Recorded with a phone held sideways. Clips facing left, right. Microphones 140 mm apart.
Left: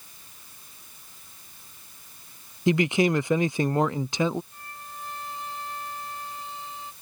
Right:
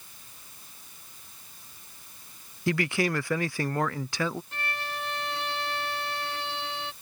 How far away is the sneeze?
No sneeze in this recording.